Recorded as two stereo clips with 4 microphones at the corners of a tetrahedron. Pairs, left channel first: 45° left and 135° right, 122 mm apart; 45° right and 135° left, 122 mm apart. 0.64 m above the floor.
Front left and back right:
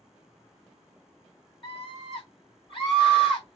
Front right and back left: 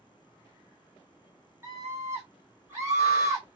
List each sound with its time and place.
1.6 s a scream: 75° left, 1.4 m